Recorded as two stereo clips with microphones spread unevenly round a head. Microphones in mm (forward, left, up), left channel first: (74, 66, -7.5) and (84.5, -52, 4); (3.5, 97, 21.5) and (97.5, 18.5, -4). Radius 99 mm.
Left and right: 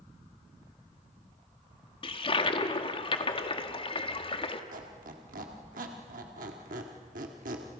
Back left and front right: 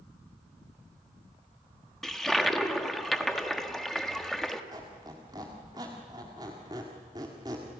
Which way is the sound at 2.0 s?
50° left.